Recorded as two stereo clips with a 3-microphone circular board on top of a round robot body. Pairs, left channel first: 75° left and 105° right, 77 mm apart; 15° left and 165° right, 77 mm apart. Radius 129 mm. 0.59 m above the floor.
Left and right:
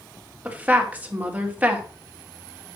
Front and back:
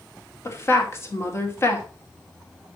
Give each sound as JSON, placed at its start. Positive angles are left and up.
{"t": 0.5, "sound": "a woman speaking", "azimuth_deg": -40, "distance_m": 2.5}